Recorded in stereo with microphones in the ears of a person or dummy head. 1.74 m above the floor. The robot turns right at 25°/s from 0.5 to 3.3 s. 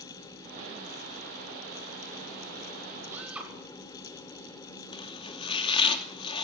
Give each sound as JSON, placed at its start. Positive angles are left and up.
{"t": 3.1, "sound": "a drill", "side_deg": -10, "distance_m": 6.5}
{"t": 4.9, "sound": "chopping", "side_deg": 35, "distance_m": 2.5}